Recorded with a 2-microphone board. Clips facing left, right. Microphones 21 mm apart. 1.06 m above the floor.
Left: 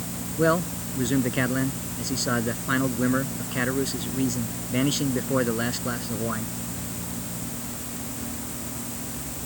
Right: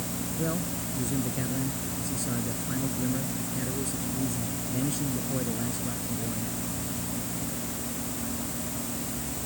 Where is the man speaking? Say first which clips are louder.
Left 11 dB; 50° left (ahead or behind).